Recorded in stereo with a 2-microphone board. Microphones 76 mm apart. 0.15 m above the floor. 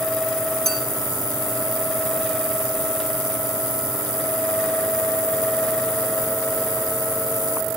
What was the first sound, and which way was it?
A clink, 5° left (ahead or behind).